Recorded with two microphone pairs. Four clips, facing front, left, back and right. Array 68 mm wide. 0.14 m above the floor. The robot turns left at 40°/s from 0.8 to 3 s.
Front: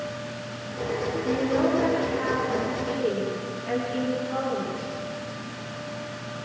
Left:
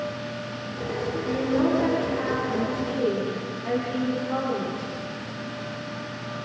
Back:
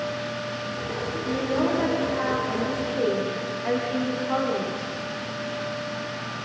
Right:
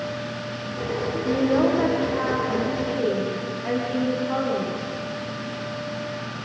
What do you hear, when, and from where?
1.2 s a woman speaking: 80° right, 8.5 m; by 4.9 s 150° right, 8.5 m